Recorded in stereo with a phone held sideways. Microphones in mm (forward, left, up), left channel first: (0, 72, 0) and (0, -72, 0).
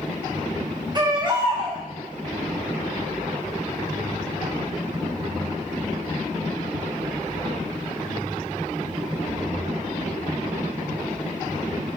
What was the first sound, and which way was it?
A baby crying, 30° right (ahead or behind).